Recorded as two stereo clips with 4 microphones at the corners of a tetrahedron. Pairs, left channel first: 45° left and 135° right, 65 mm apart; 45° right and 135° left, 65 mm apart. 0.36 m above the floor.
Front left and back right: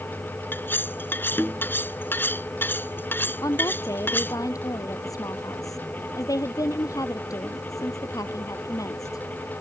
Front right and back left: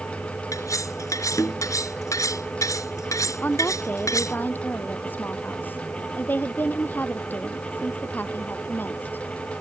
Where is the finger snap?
I don't hear a finger snap.